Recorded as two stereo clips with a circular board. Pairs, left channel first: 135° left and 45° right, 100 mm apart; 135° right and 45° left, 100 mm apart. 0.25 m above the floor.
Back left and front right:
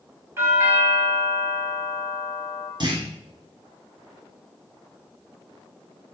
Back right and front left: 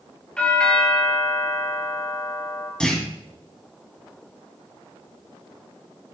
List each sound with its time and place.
0.4 s a doorbell: 70° right, 2.5 m
2.8 s a clunk: 55° right, 1.9 m